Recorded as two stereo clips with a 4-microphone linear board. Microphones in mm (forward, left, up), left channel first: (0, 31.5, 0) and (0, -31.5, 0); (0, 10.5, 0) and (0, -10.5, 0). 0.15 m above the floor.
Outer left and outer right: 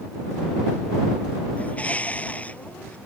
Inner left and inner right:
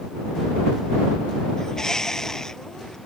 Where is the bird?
25° left (ahead or behind).